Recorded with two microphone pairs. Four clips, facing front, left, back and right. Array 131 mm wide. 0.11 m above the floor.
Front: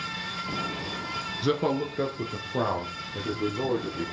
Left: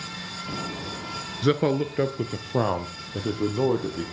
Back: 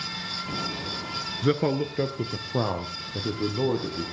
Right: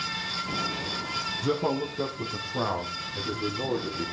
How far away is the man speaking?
About 1.3 m.